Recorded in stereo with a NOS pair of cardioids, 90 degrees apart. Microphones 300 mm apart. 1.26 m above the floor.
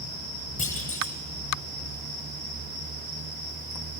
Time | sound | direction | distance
0.6 | a clunk | 25° left | 8 m